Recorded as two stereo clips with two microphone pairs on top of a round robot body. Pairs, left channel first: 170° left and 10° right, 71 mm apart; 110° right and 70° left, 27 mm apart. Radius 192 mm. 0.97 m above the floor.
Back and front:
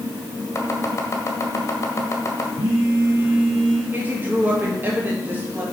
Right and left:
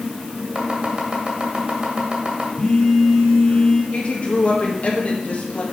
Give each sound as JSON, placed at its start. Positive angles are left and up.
{"t": 0.6, "sound": "chopping", "azimuth_deg": 120, "distance_m": 1.6}
{"t": 2.6, "sound": "a phone buzzing", "azimuth_deg": -30, "distance_m": 1.7}
{"t": 3.9, "sound": "a woman speaking", "azimuth_deg": -75, "distance_m": 2.0}